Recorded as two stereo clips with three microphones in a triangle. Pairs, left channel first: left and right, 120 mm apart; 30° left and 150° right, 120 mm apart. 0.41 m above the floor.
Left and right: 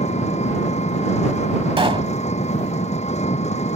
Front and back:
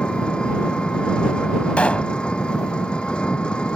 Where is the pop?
50° right.